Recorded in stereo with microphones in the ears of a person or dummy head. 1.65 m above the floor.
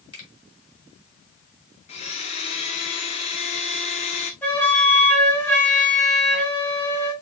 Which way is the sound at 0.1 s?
25° left (ahead or behind).